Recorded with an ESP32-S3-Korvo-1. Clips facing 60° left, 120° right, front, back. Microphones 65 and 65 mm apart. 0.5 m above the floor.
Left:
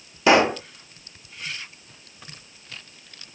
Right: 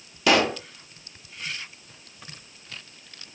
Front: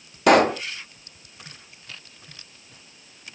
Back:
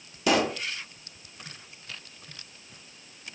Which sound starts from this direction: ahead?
A pop, at 0.3 s.